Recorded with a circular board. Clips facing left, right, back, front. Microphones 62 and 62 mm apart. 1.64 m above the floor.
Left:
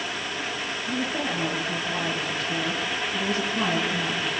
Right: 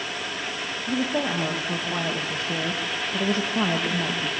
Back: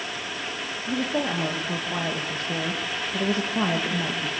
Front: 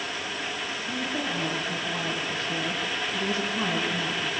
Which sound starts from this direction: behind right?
A woman speaking, at 0.9 s.